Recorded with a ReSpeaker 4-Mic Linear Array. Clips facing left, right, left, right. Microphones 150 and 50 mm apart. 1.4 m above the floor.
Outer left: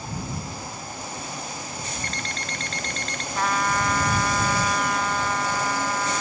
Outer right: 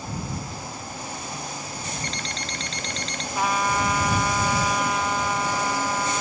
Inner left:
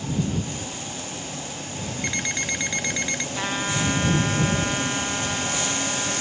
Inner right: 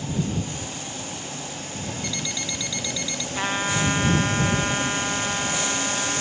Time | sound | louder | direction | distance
2.0 | an alarm clock | even, inner left 7 dB | 50° left (ahead or behind) | ?
3.4 | a trumpet | outer right 1 dB, inner right 3 dB | 10° right (ahead or behind) | ?